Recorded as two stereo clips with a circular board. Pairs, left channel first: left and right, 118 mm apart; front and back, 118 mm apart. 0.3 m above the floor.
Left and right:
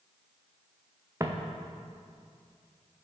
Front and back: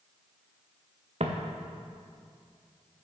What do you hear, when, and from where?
1.2 s footsteps: 155° right, 1.8 m